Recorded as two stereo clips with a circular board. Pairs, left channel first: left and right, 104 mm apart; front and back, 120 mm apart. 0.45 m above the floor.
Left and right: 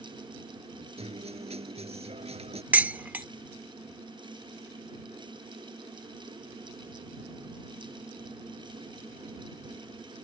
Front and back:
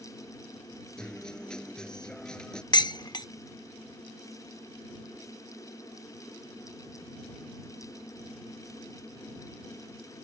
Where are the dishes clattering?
25° right.